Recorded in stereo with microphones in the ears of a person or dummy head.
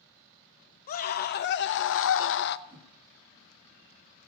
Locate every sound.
0.9 s a scream: 45° left (ahead or behind), 1.2 m; by 2.6 s 60° left (ahead or behind), 0.6 m
2.7 s a whoosh: 15° right (ahead or behind), 1.1 m